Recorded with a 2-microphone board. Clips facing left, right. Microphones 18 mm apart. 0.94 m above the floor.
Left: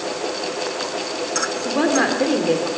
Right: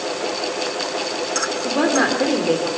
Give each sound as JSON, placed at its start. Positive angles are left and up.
{"t": 1.6, "sound": "a woman speaking", "side_deg": 0, "distance_m": 2.5}